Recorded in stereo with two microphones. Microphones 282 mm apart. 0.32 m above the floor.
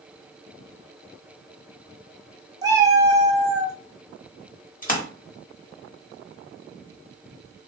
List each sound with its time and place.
2.6 s a cat meowing: 15° right (ahead or behind), 0.7 m
4.8 s a splash: 30° left (ahead or behind), 0.9 m